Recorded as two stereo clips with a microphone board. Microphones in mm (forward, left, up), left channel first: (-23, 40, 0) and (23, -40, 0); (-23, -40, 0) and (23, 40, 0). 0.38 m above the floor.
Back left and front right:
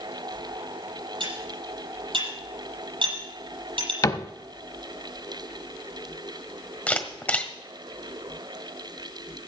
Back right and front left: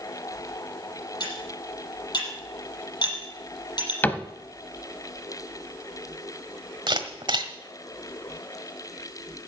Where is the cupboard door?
170° left, 0.8 m.